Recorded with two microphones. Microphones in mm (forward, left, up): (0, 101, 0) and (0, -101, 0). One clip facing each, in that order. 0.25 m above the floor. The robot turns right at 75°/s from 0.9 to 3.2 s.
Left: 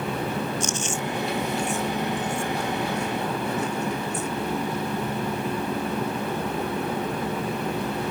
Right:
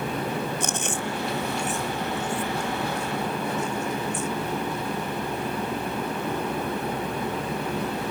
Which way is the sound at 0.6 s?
65° right (ahead or behind).